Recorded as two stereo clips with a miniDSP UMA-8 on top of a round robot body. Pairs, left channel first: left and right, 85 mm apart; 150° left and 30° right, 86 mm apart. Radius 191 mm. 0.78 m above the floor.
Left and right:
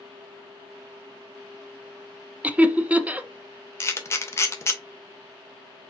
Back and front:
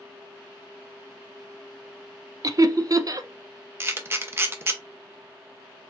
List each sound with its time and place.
2.4 s laughter: 25° right, 0.9 m
3.8 s a camera shutter: 30° left, 1.1 m